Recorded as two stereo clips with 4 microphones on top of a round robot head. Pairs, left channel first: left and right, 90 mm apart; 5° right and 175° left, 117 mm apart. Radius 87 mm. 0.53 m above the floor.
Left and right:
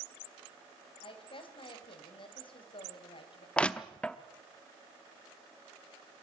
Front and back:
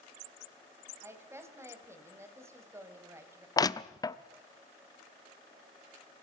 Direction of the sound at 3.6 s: 20° left.